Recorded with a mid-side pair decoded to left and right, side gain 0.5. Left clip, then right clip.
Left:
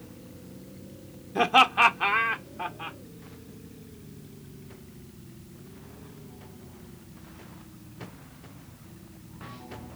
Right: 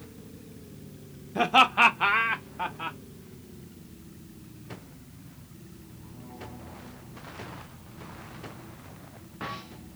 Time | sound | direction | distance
1.4 | laughter | 15° left | 0.7 m